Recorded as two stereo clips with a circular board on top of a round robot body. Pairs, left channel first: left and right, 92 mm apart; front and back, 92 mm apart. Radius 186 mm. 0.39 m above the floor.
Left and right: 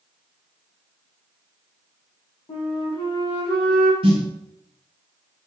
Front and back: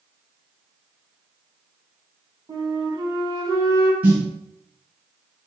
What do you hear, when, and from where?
2.5 s a flute: 130° left, 0.8 m
4.0 s a snare drum: 110° right, 0.9 m